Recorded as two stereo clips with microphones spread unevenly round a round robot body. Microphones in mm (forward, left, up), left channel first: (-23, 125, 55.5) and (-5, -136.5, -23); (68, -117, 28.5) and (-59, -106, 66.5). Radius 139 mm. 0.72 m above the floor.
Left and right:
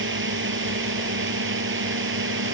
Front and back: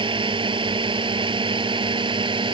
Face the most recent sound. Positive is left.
turn(degrees=-135)